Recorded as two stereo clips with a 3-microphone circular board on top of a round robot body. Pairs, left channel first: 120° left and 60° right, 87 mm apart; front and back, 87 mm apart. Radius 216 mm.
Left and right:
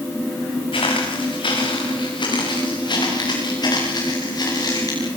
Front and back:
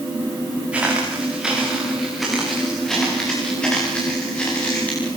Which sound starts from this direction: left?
Footsteps, at 0.7 s.